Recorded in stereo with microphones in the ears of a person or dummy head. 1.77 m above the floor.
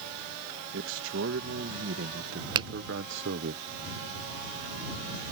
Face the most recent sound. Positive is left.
turn(degrees=-30)  # may be behind; listen again after turning